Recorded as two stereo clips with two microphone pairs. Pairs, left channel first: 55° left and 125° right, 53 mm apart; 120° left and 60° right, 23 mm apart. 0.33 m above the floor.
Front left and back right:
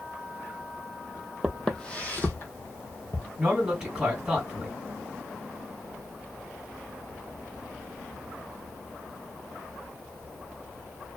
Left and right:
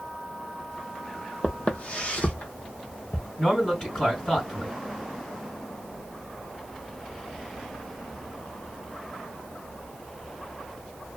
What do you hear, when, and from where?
1.4 s footsteps: 145° left, 0.6 m; by 3.3 s 90° left, 1.2 m
3.4 s a man speaking: 150° left, 2 m